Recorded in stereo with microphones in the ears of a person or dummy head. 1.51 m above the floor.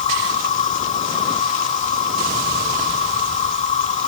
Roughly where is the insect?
Left.